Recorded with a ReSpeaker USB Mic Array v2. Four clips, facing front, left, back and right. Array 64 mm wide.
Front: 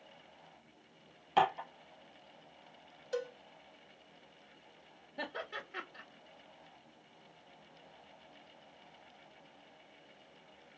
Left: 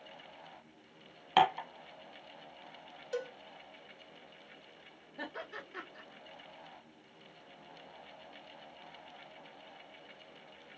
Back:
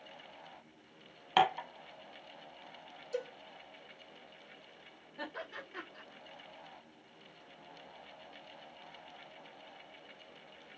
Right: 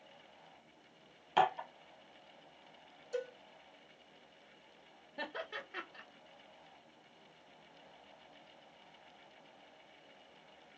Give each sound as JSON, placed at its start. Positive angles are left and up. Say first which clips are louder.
{"t": 1.4, "sound": "dishes clattering", "louder": "left 3 dB, back 1 dB", "azimuth_deg": 125, "distance_m": 1.3}
{"t": 3.1, "sound": "a cowbell", "louder": "left 2 dB, front 1 dB", "azimuth_deg": 50, "distance_m": 1.2}
{"t": 5.2, "sound": "laughter", "louder": "right 1 dB, front 2 dB", "azimuth_deg": -65, "distance_m": 1.7}